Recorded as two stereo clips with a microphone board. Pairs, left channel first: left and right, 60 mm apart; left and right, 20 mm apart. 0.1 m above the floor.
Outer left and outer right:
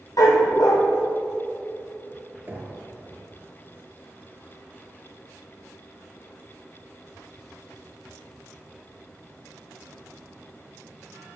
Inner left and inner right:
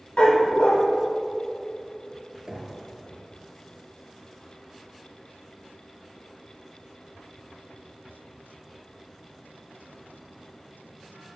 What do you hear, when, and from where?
0.2 s a dog barking: 70° left (ahead or behind), 1.5 m
2.5 s knocking: 40° right (ahead or behind), 1.9 m